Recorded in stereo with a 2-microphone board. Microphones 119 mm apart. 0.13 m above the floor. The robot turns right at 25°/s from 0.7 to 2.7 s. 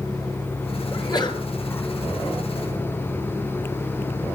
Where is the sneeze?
35° left (ahead or behind), 2.5 m; by 1.4 s 40° left (ahead or behind), 2.5 m.